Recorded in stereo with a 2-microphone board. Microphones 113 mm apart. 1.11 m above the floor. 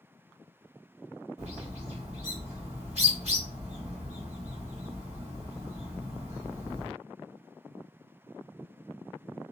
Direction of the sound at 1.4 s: 75° right (ahead or behind).